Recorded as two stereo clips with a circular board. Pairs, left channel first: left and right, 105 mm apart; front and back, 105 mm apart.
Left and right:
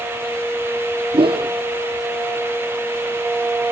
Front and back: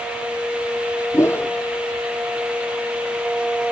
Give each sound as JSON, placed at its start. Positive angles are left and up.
{"t": 1.1, "sound": "a whoosh", "azimuth_deg": -65}